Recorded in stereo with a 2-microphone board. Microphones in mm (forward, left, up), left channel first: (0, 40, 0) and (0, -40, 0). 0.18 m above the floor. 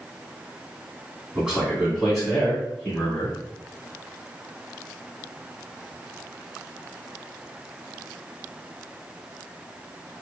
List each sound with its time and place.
1.4 s a man speaking: 10° right (ahead or behind), 1.6 m; by 3.4 s 20° left (ahead or behind), 1.8 m